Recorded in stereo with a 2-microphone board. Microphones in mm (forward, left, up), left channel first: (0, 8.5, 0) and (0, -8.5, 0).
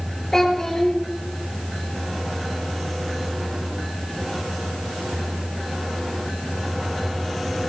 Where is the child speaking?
40° left (ahead or behind), 3.5 m.